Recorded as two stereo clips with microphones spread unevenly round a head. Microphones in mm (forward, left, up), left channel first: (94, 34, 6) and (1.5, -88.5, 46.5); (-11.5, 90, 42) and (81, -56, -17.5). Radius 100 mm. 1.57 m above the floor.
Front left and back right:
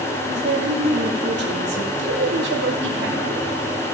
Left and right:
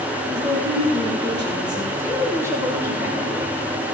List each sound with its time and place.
0.3 s a woman speaking: 130° right, 2.5 m
2.0 s a woman speaking: 135° right, 2.0 m